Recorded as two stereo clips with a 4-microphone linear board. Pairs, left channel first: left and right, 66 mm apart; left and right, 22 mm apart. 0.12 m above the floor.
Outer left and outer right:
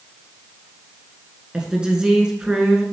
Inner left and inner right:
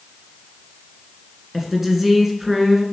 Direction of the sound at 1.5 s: 15° right (ahead or behind).